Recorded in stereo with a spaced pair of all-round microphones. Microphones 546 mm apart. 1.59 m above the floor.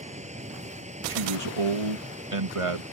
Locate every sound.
0.0 s a machine running: 10° right (ahead or behind)
1.1 s a man speaking: 70° right (ahead or behind)